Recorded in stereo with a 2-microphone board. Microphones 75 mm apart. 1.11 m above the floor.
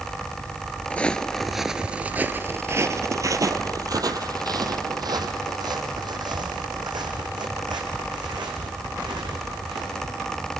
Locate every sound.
0.9 s footsteps: 20° left (ahead or behind), 1.1 m; by 10.3 s 80° right, 5.5 m